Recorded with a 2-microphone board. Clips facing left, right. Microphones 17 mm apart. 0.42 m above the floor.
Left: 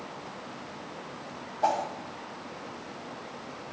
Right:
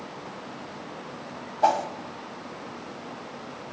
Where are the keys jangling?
I don't hear keys jangling.